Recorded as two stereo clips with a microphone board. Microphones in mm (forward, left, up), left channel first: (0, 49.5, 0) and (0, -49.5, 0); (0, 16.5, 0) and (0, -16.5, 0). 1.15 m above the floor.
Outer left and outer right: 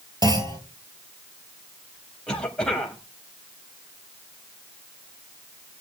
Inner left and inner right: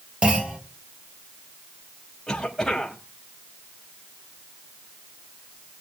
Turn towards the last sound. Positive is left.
turn(degrees=10)  # may be behind; listen again after turning